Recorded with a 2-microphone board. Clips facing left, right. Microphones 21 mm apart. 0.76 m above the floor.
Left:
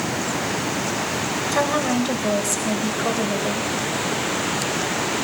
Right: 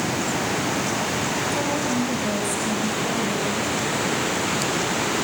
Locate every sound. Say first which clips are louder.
1.5 s a woman speaking: left 3 dB; 75° left (ahead or behind), 4 m